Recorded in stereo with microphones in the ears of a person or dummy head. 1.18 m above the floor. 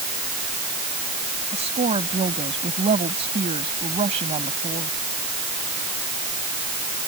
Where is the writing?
I don't hear writing.